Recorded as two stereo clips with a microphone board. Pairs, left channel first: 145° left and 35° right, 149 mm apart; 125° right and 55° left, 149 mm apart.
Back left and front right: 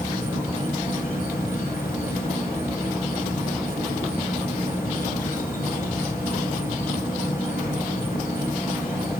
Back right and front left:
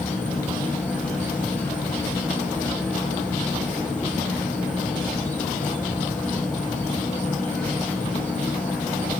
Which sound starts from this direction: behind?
An insect, at 0.0 s.